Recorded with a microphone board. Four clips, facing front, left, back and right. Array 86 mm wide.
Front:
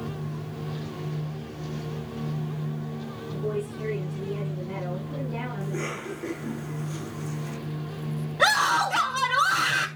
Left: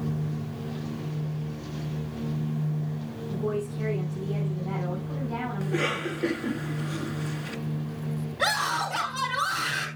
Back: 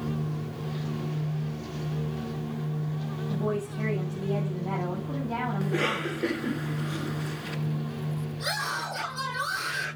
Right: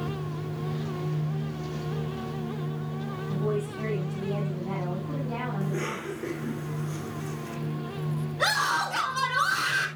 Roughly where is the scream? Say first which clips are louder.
Right 1 dB, front 13 dB; ahead.